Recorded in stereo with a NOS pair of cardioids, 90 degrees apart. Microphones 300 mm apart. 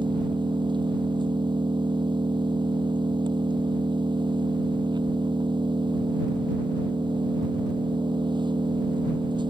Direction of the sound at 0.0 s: 15° right.